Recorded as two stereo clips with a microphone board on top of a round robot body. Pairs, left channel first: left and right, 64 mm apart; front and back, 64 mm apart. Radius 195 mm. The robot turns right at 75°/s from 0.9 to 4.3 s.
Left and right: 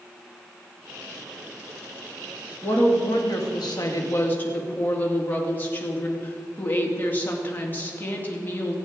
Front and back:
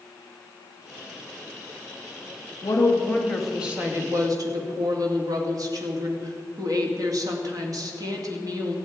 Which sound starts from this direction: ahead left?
A woman speaking, at 2.6 s.